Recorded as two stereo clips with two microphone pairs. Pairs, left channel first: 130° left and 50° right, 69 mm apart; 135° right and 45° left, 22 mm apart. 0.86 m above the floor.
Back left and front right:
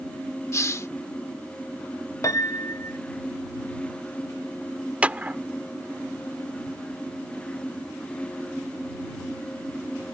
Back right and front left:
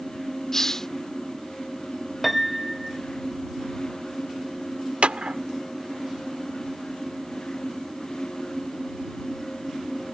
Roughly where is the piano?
Behind left.